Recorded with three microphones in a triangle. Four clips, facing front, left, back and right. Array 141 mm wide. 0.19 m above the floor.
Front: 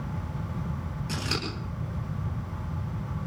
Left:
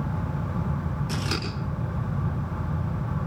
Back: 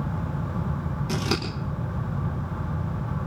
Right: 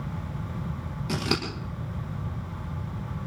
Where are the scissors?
125° right, 8.5 m.